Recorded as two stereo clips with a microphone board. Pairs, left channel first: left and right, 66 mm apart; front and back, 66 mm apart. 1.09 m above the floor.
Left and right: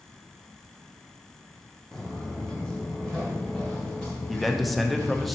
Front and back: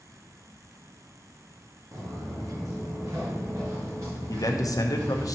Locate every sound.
1.9 s footsteps: 175° left, 1.9 m; by 5.3 s 150° left, 4 m
4.3 s a man speaking: straight ahead, 0.8 m